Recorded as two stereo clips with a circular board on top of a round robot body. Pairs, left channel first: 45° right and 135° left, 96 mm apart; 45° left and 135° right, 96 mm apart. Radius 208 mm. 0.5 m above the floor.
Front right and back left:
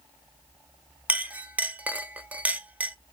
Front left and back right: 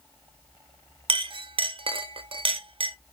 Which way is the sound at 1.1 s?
150° right.